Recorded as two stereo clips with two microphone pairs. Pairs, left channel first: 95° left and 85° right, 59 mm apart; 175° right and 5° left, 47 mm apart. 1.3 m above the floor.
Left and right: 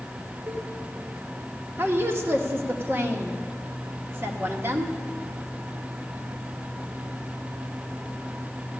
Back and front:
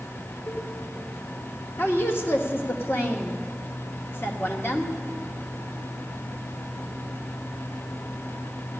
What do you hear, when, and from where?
0.5 s a cowbell: 120° right, 2 m
1.8 s a woman speaking: 135° right, 1.5 m